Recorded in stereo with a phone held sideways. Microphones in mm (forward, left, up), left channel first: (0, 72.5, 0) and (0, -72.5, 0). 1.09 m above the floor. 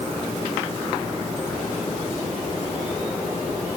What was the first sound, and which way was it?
Only background noise.